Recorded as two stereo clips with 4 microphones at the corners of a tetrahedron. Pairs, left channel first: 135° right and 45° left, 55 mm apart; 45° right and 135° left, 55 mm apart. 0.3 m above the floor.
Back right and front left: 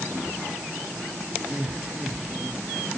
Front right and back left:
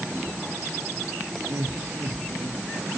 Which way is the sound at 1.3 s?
115° left.